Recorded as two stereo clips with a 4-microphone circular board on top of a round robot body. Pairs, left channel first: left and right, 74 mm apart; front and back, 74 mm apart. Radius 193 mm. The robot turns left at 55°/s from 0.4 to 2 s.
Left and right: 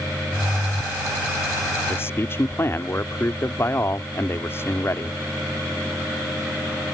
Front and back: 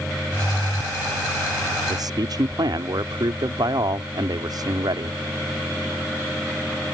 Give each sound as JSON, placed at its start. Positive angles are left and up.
{"t": 1.9, "sound": "a man speaking", "azimuth_deg": 155}